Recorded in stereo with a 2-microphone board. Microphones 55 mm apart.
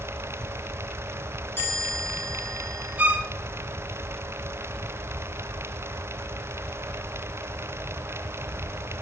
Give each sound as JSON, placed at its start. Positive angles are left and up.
{"t": 1.6, "sound": "a chime", "side_deg": 50, "distance_m": 5.5}
{"t": 3.0, "sound": "a violin", "side_deg": -30, "distance_m": 0.7}